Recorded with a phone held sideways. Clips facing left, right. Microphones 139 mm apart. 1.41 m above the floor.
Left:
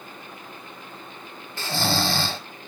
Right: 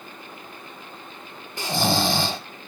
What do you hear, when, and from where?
1.6 s snoring: 15° right (ahead or behind), 0.6 m